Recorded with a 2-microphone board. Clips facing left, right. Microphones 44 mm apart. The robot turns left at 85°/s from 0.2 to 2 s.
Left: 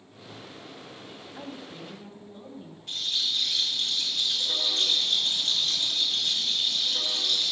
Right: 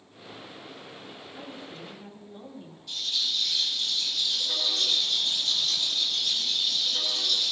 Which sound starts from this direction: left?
A rattle, at 2.9 s.